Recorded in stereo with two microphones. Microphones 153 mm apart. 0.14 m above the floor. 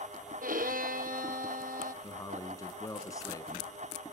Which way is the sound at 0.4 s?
70° right (ahead or behind).